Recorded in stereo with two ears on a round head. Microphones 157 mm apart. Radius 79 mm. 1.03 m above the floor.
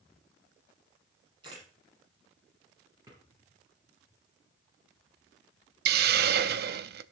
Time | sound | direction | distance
1.4 | a camera shutter | 25° right (ahead or behind) | 7.5 m
3.1 | a drawer | 20° right (ahead or behind) | 8.5 m
5.8 | a hiss | 60° right (ahead or behind) | 0.6 m